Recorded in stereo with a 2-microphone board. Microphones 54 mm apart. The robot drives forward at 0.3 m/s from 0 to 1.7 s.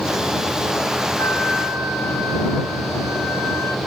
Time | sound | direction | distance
1.2 | a flute | 55° left (ahead or behind) | 5 m